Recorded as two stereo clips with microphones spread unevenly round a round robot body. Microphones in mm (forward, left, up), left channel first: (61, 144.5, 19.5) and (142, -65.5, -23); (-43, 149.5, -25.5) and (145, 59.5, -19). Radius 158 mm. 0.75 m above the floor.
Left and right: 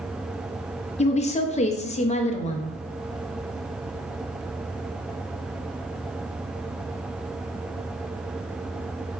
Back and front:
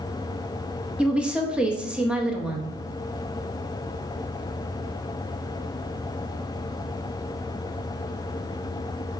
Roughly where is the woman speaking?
Ahead left.